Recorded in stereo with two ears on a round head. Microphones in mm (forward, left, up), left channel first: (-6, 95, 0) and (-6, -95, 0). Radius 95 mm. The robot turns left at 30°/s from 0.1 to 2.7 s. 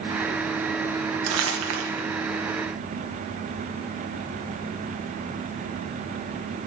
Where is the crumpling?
80° right, 1.5 m; by 2.0 s 55° right (ahead or behind), 1.5 m.